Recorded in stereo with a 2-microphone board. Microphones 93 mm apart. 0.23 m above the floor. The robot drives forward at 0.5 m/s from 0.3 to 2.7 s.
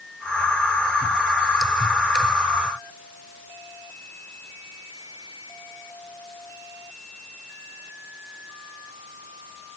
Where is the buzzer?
I don't hear a buzzer.